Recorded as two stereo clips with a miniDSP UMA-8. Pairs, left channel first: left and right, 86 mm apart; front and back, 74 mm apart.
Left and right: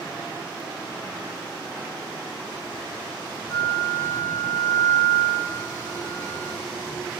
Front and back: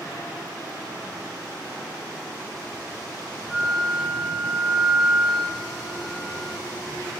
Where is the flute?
85° left, 1.9 m.